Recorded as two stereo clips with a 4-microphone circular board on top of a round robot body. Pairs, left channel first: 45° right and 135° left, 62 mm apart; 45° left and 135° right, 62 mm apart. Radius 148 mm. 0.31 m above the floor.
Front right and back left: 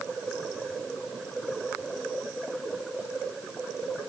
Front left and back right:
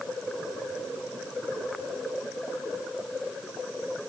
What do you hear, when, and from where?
Only background noise.